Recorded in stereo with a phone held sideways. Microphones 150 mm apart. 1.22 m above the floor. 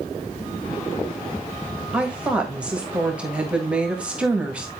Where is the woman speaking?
10° right (ahead or behind), 1.7 m.